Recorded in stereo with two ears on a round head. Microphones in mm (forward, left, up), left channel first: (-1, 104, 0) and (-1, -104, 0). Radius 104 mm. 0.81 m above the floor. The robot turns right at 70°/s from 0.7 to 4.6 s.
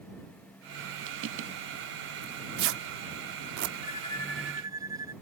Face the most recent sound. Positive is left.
turn(degrees=-165)